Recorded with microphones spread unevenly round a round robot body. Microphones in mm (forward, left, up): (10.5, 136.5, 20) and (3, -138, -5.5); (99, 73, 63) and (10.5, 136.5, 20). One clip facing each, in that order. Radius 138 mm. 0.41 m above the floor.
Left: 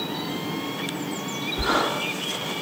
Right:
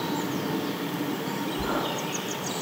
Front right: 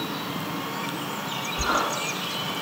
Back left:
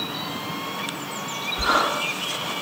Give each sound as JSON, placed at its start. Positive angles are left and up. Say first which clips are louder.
{"t": 1.6, "sound": "a sliding door", "louder": "left 6 dB, back left 4 dB", "azimuth_deg": 70, "distance_m": 1.2}